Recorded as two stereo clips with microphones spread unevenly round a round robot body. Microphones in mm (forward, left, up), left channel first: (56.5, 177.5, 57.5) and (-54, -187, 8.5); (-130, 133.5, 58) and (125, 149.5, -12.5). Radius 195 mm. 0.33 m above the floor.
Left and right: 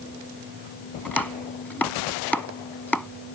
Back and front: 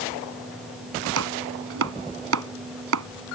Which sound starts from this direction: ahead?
Chopping, at 1.1 s.